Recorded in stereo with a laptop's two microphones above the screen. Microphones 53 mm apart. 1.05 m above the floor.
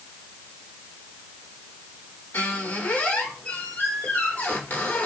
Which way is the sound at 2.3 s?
30° left (ahead or behind).